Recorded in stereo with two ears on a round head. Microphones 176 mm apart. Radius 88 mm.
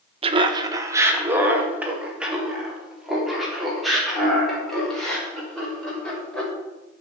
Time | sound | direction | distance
0.2 | laughter | 30° right (ahead or behind) | 1.0 m